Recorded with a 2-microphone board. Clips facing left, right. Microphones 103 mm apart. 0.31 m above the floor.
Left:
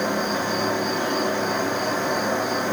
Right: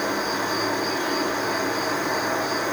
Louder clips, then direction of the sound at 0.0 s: Left 1 dB; 25° left (ahead or behind).